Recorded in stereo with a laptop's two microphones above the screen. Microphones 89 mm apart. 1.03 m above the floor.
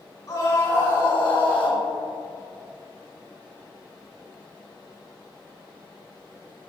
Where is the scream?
50° left (ahead or behind), 3 m; by 1.8 s 65° left (ahead or behind), 1.6 m.